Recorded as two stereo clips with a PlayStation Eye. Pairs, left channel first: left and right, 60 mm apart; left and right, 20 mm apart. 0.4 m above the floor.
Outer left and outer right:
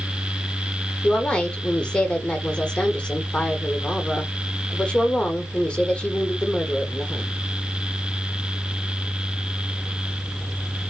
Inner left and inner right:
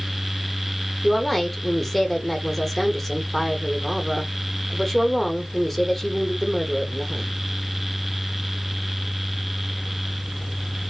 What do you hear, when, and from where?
1.0 s a woman speaking: 15° left (ahead or behind), 0.8 m